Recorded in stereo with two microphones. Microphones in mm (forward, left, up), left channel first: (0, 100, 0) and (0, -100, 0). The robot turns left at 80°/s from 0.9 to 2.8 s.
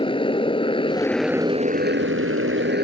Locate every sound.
0.0 s a motorcycle: 25° left; by 2.8 s 130° right